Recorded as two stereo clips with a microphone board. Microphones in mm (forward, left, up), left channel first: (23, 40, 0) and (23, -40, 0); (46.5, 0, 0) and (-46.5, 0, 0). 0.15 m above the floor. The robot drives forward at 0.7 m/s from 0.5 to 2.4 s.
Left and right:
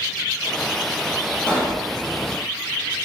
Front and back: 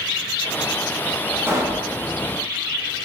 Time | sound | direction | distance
1.5 | a pop | 150° left | 0.8 m